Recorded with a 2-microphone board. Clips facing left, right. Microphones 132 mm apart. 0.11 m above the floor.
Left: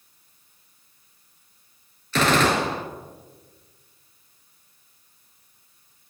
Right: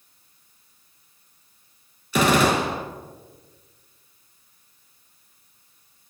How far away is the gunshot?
About 0.7 m.